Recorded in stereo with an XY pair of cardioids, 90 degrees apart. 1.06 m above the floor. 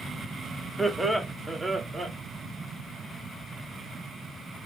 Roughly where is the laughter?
Ahead.